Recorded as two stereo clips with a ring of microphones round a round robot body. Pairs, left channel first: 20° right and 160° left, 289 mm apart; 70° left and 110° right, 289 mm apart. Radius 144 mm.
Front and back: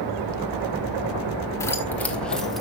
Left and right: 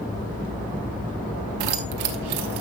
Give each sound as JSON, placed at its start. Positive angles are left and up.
{"t": 1.6, "sound": "keys jangling", "azimuth_deg": -105, "distance_m": 1.0}